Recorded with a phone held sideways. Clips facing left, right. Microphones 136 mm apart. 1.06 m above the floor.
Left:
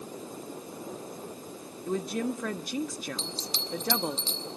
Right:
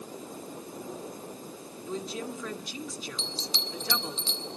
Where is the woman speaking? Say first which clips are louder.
Left 5 dB; 55° left (ahead or behind), 1.5 m.